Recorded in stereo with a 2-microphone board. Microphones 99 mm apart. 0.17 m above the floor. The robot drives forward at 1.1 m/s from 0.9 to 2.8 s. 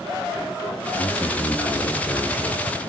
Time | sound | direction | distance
1.0 | a man speaking | 35° left (ahead or behind) | 1.3 m